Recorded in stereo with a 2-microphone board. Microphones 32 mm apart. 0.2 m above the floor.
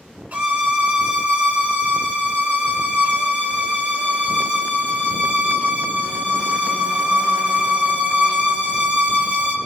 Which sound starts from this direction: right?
A violin, at 0.3 s.